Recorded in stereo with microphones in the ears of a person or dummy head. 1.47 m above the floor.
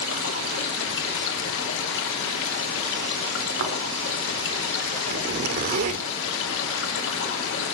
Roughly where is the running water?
Left.